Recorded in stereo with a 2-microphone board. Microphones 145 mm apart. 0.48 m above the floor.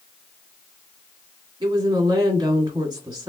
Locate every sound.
1.6 s a woman speaking: 30° right (ahead or behind), 1.4 m